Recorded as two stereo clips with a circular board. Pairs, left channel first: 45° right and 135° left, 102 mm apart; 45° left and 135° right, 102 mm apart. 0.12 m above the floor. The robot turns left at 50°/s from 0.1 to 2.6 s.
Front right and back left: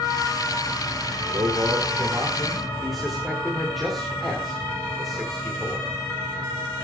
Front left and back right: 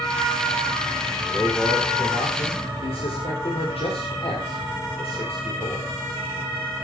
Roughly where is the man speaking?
Left.